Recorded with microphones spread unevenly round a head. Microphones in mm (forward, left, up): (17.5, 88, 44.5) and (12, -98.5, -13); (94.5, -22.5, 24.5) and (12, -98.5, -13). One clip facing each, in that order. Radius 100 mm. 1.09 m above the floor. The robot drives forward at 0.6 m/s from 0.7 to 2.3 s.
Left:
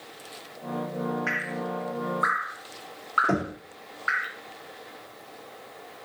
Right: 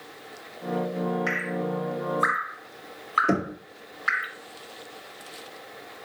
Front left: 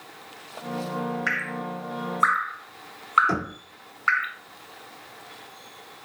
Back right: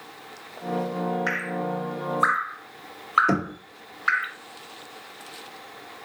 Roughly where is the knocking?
Behind right.